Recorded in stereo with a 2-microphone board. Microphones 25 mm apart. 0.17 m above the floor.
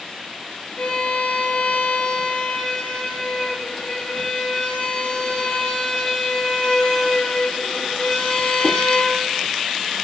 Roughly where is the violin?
Left.